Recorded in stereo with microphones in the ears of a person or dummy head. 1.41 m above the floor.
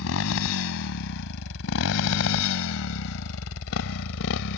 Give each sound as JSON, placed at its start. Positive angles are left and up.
{"t": 0.0, "sound": "a motorcycle", "side_deg": 80}